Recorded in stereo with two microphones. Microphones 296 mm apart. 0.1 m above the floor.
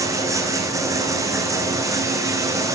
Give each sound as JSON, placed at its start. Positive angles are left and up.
{"t": 0.0, "sound": "running water", "side_deg": -10, "distance_m": 4.0}